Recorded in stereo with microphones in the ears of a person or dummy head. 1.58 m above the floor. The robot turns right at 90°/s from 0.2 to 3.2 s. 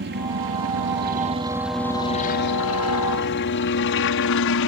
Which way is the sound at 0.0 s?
50° right (ahead or behind).